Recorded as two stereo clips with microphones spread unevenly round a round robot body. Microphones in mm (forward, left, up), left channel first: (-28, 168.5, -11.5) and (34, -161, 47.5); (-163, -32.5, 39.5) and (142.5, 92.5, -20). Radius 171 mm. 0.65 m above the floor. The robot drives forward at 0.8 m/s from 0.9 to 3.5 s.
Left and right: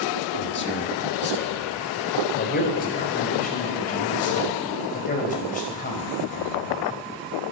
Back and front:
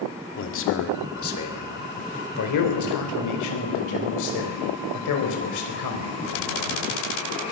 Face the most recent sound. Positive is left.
turn(degrees=165)